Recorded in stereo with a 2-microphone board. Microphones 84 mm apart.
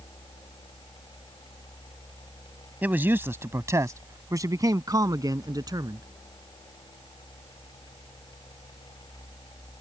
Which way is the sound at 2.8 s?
20° right (ahead or behind).